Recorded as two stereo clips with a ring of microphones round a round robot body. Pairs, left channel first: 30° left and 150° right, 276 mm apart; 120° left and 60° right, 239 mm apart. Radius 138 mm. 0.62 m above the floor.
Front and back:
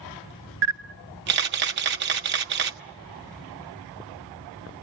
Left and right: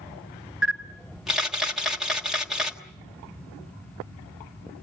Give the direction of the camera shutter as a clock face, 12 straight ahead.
5 o'clock.